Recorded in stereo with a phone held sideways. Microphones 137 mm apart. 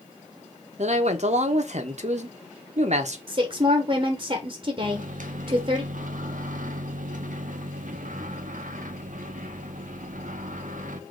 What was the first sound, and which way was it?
A man speaking, 55° right (ahead or behind).